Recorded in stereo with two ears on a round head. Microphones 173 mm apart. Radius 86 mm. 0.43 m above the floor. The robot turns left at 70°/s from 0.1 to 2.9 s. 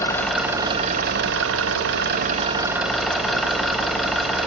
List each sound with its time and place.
0.0 s an engine running: 15° left, 0.9 m; by 4.5 s straight behind, 0.9 m